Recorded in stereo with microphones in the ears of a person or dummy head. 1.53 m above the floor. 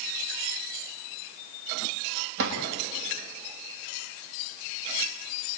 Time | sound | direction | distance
2.4 | a drawer | 65° right (ahead or behind) | 4.5 m